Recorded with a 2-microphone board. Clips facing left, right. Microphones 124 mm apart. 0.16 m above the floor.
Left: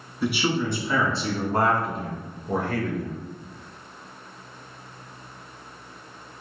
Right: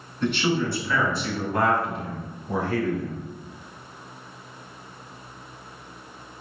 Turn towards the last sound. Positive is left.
turn(degrees=60)  # may be behind; listen again after turning